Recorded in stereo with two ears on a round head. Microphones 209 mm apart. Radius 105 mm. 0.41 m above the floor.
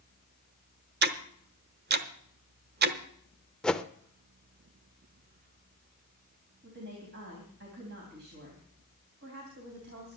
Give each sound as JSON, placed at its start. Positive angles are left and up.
{"t": 1.0, "sound": "ticking", "side_deg": -45, "distance_m": 0.9}
{"t": 3.6, "sound": "a whoosh", "side_deg": 5, "distance_m": 0.6}
{"t": 6.6, "sound": "a woman speaking", "side_deg": -45, "distance_m": 3.5}